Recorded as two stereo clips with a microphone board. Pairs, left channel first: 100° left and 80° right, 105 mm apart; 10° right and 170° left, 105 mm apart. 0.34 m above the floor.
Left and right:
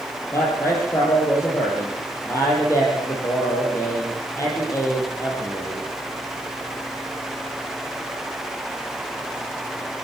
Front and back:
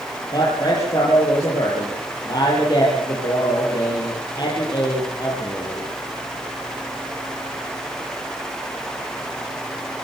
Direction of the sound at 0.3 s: 40° left.